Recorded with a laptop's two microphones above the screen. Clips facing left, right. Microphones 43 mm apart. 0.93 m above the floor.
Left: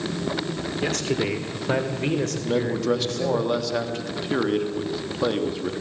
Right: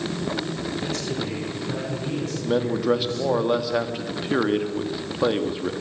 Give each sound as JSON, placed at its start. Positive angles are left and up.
{"t": 0.8, "sound": "a man speaking", "side_deg": 70, "distance_m": 2.0}
{"t": 2.4, "sound": "a man speaking", "side_deg": -15, "distance_m": 1.2}